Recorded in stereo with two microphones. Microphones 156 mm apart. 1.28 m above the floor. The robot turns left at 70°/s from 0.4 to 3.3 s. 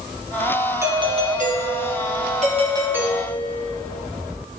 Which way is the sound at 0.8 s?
15° right.